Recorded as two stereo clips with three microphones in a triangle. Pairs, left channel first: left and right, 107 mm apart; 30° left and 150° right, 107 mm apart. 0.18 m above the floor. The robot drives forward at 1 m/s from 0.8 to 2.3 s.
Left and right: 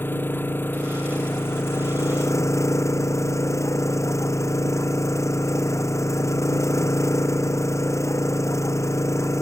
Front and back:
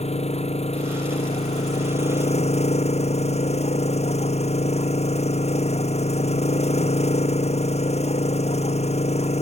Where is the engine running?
20° left; by 9.4 s 25° left.